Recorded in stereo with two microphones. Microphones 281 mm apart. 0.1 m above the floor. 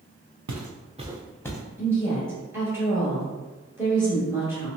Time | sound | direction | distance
0.5 | footsteps | 75° right (ahead or behind) | 0.7 m
1.8 | a woman speaking | 10° right (ahead or behind) | 1.5 m